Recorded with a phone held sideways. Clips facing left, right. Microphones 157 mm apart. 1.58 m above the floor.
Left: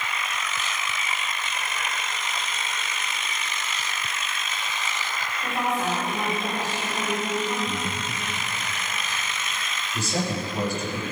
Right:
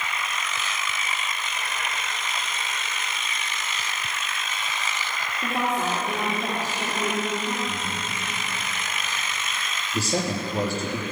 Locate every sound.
5.4 s a woman speaking: 85° right, 4 m
7.7 s breathing: 20° left (ahead or behind), 1.3 m
9.9 s a man speaking: 40° right (ahead or behind), 4 m